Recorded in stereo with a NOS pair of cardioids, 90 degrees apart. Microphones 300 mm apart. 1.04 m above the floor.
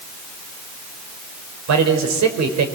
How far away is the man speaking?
About 4.5 m.